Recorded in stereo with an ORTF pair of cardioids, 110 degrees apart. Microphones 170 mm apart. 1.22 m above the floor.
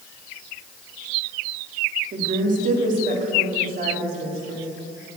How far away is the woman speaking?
About 2.5 m.